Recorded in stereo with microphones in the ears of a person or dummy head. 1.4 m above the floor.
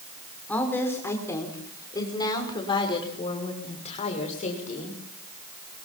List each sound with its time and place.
0.5 s a woman speaking: 10° left (ahead or behind), 5.5 m; by 5.0 s 45° left (ahead or behind), 6 m